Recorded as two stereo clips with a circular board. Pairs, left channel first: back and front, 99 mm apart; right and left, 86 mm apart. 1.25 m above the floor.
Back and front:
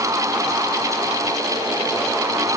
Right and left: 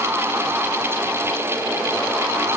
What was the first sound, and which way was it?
Only background noise.